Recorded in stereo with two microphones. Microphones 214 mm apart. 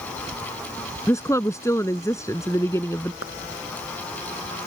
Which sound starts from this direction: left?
A clap, at 3.2 s.